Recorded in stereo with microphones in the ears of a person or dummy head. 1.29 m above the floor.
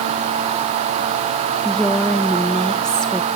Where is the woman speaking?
5° left (ahead or behind), 1.2 m.